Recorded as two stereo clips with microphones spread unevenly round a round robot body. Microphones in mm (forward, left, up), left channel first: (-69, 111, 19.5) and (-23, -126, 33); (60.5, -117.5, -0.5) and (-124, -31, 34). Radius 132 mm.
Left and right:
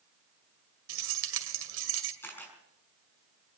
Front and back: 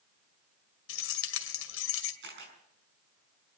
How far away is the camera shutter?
About 5.5 m.